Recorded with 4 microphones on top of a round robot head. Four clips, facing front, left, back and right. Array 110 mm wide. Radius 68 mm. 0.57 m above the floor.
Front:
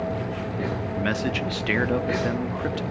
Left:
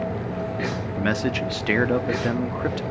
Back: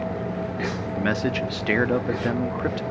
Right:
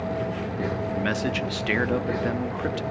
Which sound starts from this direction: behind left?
A man speaking, at 1.0 s.